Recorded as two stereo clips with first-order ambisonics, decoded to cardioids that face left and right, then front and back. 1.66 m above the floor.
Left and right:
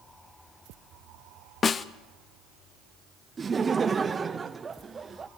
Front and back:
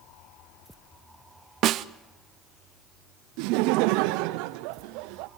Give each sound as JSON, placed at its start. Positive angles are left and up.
{"t": 1.6, "sound": "a snare drum", "azimuth_deg": 155, "distance_m": 0.5}
{"t": 3.4, "sound": "laughter", "azimuth_deg": -160, "distance_m": 0.7}